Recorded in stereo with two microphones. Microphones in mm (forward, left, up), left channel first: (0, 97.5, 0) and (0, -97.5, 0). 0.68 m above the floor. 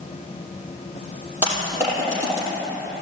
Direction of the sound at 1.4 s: 10° right (ahead or behind).